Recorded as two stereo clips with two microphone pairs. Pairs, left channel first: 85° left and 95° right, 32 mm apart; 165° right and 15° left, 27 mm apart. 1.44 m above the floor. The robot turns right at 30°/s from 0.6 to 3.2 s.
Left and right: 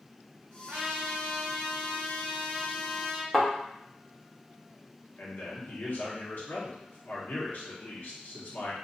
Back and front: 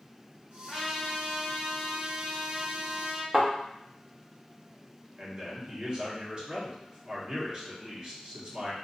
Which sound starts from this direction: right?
A trumpet, at 0.7 s.